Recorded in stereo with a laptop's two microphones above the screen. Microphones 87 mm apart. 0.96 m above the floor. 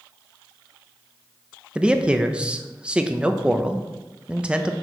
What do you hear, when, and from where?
1.8 s a man speaking: 10° right (ahead or behind), 0.6 m